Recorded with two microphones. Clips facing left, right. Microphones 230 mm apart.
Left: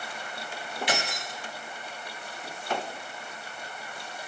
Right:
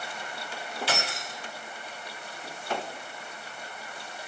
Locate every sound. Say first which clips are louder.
0.9 s keys jangling: left 2 dB; 15° left (ahead or behind), 1.3 m